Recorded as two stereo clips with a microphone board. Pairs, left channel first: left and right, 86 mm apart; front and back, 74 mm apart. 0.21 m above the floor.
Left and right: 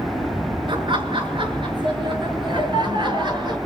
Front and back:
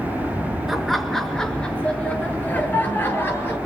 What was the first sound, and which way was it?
Laughter, 95° right.